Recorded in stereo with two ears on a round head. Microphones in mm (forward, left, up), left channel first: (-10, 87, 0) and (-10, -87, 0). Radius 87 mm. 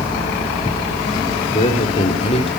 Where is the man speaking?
30° left (ahead or behind), 3.5 m.